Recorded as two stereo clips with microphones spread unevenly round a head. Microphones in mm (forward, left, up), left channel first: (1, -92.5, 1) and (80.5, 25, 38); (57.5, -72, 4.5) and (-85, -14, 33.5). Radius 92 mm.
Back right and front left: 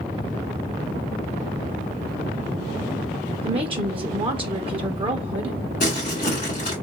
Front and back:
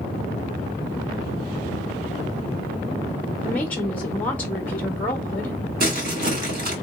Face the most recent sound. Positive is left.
turn(degrees=180)